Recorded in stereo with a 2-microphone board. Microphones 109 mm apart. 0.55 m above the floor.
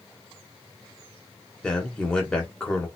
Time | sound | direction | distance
1.6 | a man speaking | 10° left (ahead or behind) | 1.3 m